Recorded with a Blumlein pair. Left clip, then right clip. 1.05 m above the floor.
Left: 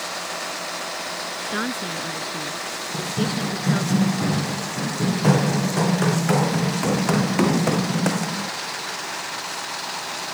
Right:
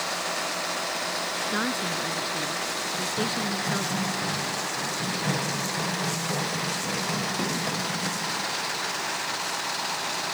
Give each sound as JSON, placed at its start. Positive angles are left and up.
{"t": 1.5, "sound": "a woman speaking", "azimuth_deg": 10}
{"t": 2.9, "sound": "running footsteps", "azimuth_deg": 30}